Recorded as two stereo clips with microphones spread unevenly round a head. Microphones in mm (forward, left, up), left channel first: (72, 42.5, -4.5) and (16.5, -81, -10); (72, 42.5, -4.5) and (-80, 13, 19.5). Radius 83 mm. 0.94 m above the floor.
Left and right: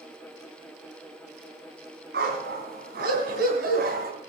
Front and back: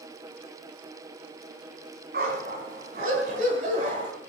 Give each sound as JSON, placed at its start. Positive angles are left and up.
{"t": 2.1, "sound": "a dog barking", "azimuth_deg": -135, "distance_m": 3.5}